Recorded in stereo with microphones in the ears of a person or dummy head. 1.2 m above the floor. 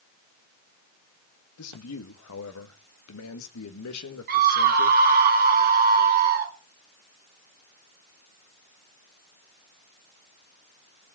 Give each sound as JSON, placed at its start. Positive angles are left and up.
{"t": 1.6, "sound": "a man speaking", "side_deg": 80, "distance_m": 1.8}
{"t": 4.3, "sound": "a scream", "side_deg": -55, "distance_m": 3.0}